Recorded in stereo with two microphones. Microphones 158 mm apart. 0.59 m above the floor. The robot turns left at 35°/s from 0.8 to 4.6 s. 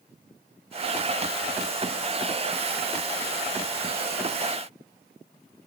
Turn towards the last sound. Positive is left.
No sound to turn to.